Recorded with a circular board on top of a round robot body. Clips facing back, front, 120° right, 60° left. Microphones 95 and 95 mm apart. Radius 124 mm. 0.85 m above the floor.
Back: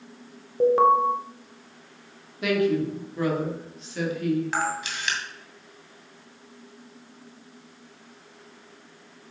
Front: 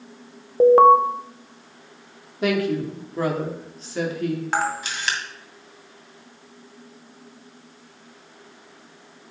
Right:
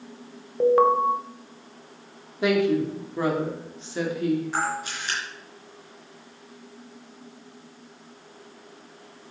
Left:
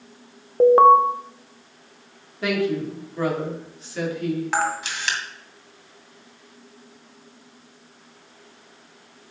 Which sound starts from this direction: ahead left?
A camera shutter, at 4.5 s.